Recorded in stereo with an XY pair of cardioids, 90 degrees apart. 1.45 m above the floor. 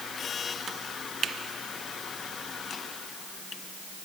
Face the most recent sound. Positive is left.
No sound to turn to.